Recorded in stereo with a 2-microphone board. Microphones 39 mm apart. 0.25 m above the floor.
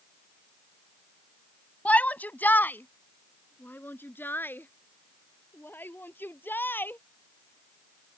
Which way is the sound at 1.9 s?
40° left (ahead or behind).